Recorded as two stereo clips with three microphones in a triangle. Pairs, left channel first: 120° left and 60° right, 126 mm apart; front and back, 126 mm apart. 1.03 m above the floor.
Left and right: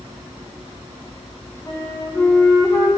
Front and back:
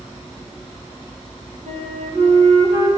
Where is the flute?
175° right, 2 m.